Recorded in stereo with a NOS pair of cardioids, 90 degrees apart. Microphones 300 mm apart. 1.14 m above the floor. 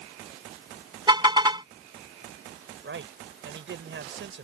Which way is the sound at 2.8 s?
40° right.